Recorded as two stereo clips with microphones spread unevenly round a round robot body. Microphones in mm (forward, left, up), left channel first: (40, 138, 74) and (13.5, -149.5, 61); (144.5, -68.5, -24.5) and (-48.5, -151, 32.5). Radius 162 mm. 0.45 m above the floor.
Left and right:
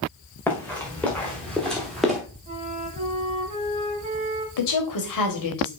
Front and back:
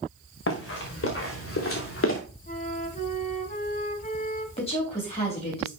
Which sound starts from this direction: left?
A woman speaking, at 4.6 s.